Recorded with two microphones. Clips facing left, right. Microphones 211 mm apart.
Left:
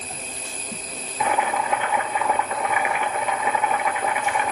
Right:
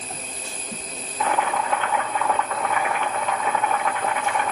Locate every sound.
1.2 s boiling: 10° left (ahead or behind), 1.6 m